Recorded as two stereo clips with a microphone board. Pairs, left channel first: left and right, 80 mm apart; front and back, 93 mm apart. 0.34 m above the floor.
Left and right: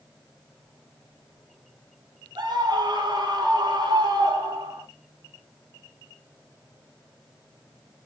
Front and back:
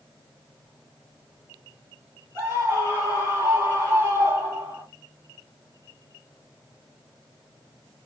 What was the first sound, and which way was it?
A scream, 115° right.